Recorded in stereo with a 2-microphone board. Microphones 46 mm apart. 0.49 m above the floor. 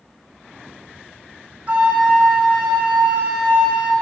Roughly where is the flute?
Right.